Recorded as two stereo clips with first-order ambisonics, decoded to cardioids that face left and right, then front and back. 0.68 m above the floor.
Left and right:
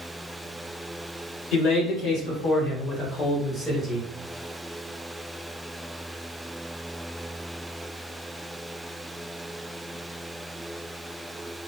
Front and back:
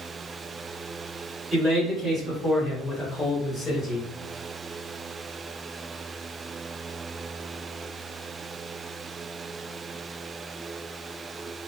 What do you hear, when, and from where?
1.5 s a man speaking: 110° left, 1.7 m; by 4.1 s straight ahead, 1.0 m